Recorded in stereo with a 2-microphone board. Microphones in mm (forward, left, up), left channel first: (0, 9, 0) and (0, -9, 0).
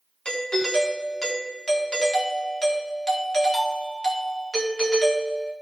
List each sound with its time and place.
0.2 s a doorbell: 45° left (ahead or behind), 1.4 m